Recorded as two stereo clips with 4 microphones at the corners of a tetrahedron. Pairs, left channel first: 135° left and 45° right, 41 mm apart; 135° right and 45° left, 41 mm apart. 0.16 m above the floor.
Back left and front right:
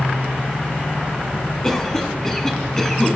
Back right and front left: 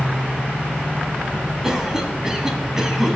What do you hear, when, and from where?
1.6 s a cough: 85° left, 1.5 m